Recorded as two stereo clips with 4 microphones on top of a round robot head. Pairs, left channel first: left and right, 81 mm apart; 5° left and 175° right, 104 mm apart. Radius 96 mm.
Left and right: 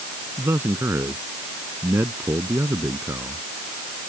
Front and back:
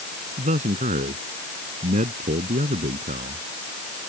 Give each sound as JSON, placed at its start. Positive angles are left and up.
{"t": 0.4, "sound": "a man speaking", "azimuth_deg": -160}